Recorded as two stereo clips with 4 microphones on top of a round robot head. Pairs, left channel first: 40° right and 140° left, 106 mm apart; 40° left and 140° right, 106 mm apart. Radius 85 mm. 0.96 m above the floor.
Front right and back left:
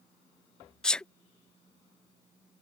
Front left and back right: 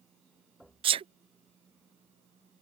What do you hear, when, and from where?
0.8 s a sneeze: 120° right